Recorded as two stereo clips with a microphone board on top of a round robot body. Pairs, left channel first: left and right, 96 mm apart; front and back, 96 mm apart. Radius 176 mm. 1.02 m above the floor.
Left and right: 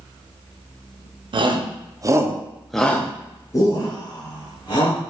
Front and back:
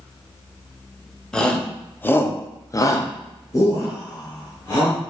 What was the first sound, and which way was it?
A shout, 80° right.